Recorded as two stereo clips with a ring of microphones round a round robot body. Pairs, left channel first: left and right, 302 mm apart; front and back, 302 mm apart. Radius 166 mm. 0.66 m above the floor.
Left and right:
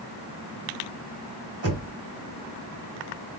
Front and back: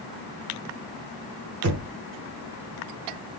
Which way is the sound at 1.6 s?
140° right.